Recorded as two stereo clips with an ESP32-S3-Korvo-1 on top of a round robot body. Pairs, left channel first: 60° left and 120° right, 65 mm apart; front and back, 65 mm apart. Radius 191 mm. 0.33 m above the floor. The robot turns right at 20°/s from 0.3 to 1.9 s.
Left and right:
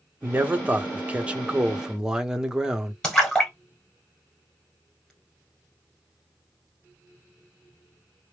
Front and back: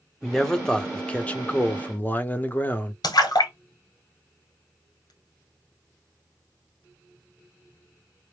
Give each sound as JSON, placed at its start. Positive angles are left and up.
{"t": 0.2, "sound": "a man speaking", "azimuth_deg": -80, "distance_m": 1.1}
{"t": 3.0, "sound": "a splash", "azimuth_deg": -20, "distance_m": 1.1}